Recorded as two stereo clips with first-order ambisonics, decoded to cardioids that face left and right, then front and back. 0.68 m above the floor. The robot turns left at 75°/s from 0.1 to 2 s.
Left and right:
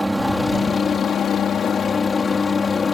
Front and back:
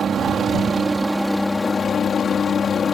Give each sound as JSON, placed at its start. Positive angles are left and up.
{"t": 0.0, "sound": "a helicopter", "azimuth_deg": -175}